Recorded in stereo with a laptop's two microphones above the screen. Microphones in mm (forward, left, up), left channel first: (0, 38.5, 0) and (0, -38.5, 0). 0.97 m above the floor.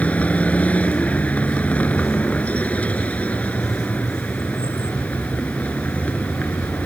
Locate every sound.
0.0 s a vehicle: 15° left (ahead or behind)